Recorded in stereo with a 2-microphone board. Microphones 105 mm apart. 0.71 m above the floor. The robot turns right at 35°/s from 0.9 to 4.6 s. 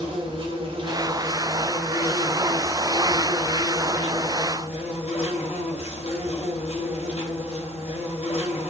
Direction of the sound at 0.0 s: 55° right.